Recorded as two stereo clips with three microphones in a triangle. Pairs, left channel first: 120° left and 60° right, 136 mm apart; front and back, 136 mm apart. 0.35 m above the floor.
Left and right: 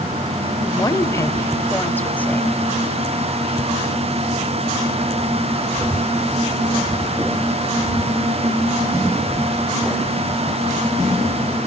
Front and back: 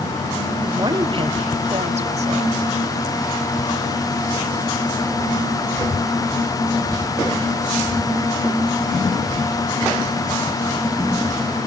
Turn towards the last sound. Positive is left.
turn(degrees=-160)